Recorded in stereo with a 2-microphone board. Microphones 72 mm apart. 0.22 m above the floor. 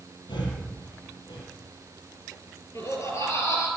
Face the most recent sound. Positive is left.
turn(degrees=40)  # may be behind; listen again after turning